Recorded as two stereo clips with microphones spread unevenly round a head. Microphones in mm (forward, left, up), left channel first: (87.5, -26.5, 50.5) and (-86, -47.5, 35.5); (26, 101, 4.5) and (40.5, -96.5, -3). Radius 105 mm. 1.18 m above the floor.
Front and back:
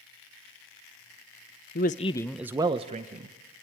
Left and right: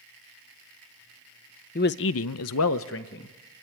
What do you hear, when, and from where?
1.8 s a man speaking: 50° left, 0.7 m; by 3.4 s 140° left, 1.2 m